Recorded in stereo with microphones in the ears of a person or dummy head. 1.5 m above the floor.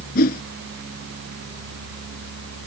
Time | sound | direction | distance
0.1 | a whoosh | 55° left (ahead or behind) | ?